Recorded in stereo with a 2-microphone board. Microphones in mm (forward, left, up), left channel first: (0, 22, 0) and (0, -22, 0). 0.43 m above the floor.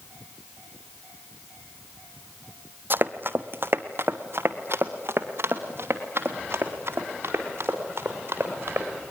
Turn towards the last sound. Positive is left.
turn(degrees=-55)  # may be behind; listen again after turning